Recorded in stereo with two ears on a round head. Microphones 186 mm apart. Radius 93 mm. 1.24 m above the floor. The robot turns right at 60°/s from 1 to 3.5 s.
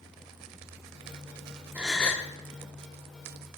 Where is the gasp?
10° right, 1.2 m; by 2.3 s 20° left, 1.2 m.